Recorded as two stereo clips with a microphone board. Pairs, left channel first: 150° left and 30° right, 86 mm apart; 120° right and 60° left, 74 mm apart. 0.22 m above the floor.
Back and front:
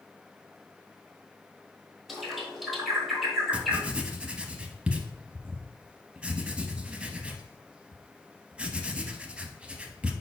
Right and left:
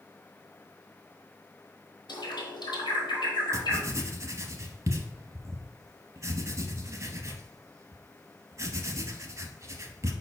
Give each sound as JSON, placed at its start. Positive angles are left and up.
{"t": 2.1, "sound": "a bird", "azimuth_deg": -120, "distance_m": 1.2}
{"t": 3.5, "sound": "writing", "azimuth_deg": 45, "distance_m": 0.5}